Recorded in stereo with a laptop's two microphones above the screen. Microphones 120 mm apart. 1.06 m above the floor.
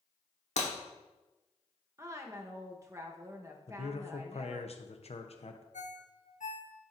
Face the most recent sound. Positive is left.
turn(degrees=85)